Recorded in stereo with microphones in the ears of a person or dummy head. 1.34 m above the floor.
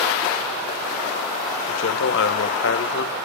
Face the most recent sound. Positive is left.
turn(degrees=70)  # may be behind; listen again after turning